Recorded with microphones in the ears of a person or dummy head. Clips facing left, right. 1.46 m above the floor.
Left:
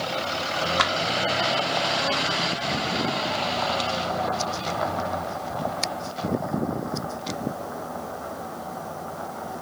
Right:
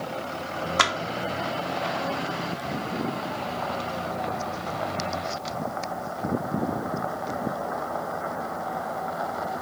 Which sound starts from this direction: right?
A clap, at 0.8 s.